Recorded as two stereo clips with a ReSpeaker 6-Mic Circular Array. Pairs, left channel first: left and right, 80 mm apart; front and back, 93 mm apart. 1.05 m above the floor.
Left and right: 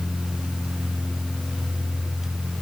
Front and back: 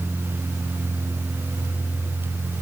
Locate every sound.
Only background noise.